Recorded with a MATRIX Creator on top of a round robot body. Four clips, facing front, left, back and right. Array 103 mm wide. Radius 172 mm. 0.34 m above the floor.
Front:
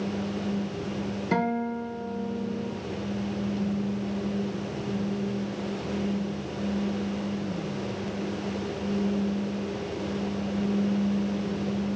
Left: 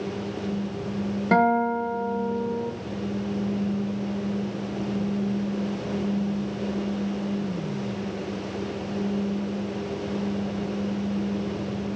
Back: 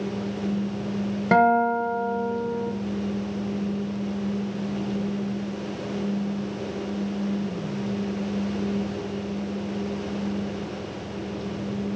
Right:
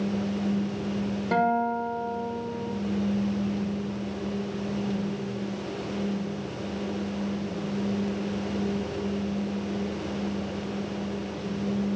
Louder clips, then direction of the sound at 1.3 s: Left 4 dB, back 10 dB; 160° left.